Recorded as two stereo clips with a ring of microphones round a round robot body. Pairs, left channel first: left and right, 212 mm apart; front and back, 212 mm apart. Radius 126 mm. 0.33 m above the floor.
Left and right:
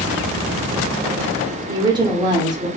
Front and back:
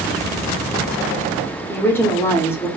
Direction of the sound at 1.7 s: 60° right.